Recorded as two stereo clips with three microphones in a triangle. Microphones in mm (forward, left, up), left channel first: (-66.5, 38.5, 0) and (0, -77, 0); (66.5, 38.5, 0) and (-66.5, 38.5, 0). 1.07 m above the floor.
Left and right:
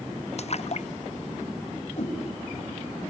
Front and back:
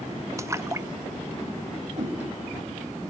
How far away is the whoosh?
About 5.5 m.